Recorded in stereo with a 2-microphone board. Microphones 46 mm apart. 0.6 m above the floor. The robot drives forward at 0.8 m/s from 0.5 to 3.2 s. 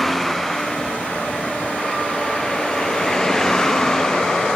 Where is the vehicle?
5° left (ahead or behind); by 4.6 s 15° left (ahead or behind).